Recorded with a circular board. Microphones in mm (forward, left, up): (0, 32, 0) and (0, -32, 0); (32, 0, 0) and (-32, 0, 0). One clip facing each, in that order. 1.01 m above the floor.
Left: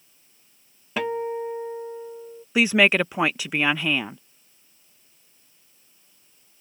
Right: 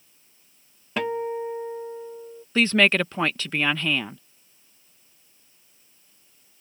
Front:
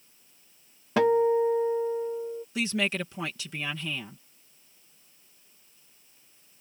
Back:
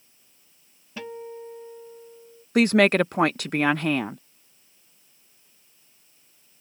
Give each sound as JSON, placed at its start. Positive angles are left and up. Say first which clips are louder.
{"t": 1.0, "sound": "a guitar", "louder": "even, front 16 dB", "azimuth_deg": 0}
{"t": 2.5, "sound": "a woman speaking", "louder": "left 1 dB, back 12 dB", "azimuth_deg": 165}